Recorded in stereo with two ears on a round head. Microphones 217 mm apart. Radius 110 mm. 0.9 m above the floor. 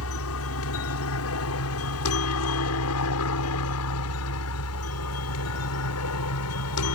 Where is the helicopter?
60° left (ahead or behind); by 7.0 s 65° left (ahead or behind).